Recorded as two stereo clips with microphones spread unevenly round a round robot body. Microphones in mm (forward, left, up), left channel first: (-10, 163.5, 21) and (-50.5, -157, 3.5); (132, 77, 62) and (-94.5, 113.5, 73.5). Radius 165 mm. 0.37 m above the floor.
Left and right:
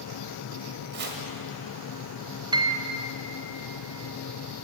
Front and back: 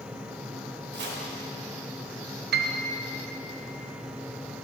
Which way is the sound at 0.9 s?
150° right.